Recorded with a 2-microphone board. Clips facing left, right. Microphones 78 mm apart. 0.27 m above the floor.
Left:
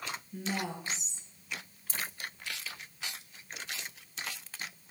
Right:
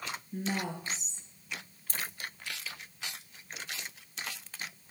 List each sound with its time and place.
0.3 s a woman speaking: 50° right (ahead or behind), 4.5 m
1.9 s a dropped coin: 50° right (ahead or behind), 1.9 m